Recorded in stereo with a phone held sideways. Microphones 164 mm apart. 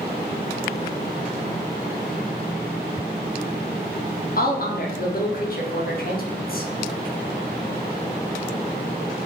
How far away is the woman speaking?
About 0.5 m.